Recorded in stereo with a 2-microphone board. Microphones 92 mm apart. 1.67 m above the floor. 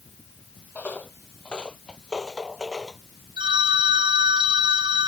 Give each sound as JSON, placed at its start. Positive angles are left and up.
{"t": 0.8, "sound": "footsteps", "side_deg": 20}
{"t": 3.4, "sound": "a phone ringing", "side_deg": -75}